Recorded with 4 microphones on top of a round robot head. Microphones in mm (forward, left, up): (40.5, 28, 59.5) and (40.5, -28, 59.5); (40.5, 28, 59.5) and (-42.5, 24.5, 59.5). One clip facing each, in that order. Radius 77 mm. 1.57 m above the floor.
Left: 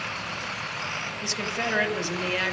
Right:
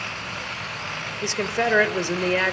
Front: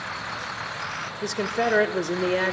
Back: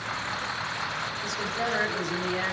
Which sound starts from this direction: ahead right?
A woman speaking, at 1.2 s.